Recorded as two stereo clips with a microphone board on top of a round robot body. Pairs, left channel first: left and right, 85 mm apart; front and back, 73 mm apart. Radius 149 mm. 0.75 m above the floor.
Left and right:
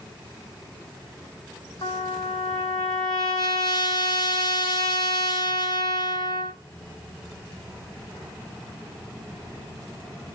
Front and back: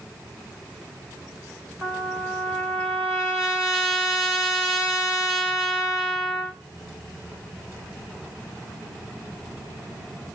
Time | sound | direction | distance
1.8 | a trumpet | 95° left | 2 m